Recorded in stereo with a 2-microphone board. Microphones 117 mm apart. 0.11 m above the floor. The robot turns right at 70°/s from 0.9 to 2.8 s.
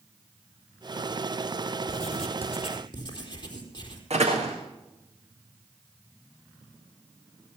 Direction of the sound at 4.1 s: 65° right (ahead or behind).